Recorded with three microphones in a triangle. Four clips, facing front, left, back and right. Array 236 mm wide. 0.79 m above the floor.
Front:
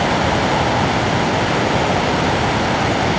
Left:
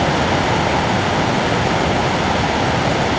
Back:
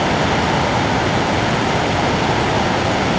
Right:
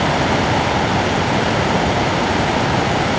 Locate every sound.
Only background noise.